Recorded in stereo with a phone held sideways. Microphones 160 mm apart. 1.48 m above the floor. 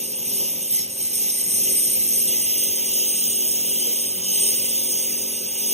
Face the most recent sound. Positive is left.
turn(degrees=-40)  # may be behind; listen again after turning